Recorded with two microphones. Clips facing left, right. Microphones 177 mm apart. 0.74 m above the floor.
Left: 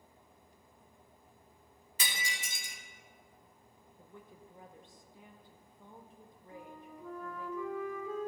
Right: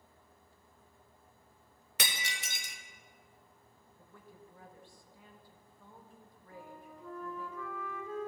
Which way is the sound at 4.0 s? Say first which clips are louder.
Left 2 dB; 20° left (ahead or behind).